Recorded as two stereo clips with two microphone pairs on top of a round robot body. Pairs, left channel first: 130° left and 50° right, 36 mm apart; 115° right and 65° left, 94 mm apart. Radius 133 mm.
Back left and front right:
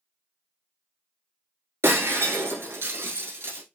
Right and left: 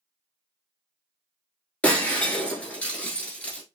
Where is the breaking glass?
45° right, 0.9 m.